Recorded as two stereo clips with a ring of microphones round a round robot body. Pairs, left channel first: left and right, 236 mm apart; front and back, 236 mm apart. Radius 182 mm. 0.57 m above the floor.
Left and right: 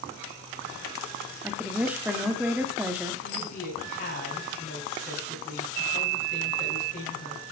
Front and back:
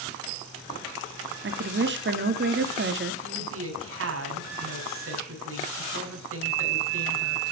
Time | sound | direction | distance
1.4 | a woman speaking | 170° right | 1.5 m
3.2 | a woman speaking | 155° left | 4.5 m